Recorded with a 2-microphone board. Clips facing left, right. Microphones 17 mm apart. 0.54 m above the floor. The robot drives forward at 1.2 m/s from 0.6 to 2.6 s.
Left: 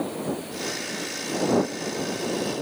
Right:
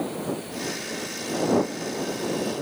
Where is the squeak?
No squeak in this recording.